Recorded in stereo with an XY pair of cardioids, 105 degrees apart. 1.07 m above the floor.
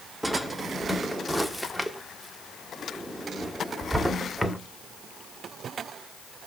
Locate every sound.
0.2 s a drawer: 5° right, 1.4 m